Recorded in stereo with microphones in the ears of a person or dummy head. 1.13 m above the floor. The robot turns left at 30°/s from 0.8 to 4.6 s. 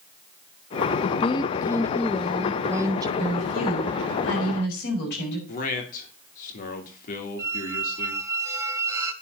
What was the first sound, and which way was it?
A woman speaking, 45° left.